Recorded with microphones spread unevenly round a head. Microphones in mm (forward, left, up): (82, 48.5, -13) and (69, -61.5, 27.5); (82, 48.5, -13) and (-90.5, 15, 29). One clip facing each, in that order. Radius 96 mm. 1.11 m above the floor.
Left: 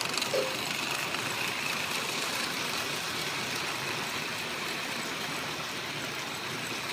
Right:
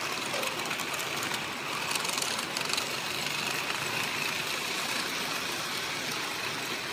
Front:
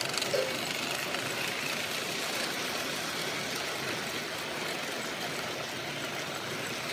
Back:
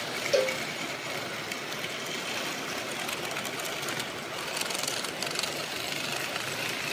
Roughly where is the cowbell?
Behind left.